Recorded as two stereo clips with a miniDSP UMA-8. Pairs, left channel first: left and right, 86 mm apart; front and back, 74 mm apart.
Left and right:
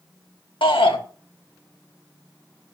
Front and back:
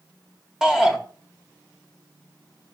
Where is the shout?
100° left, 2 m.